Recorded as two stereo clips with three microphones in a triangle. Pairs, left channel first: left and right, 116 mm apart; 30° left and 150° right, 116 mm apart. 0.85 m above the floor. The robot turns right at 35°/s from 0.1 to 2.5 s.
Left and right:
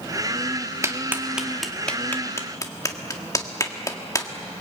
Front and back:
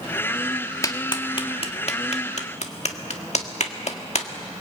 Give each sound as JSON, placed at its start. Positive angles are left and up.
{"t": 0.8, "sound": "a clap", "azimuth_deg": -25, "distance_m": 1.7}